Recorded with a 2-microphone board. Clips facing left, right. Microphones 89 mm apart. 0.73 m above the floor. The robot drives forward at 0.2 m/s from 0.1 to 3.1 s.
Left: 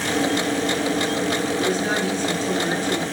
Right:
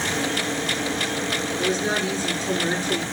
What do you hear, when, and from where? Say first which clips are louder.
1.6 s a woman speaking: left 2 dB; 40° left (ahead or behind), 2.5 m; by 3.0 s 35° left (ahead or behind), 3 m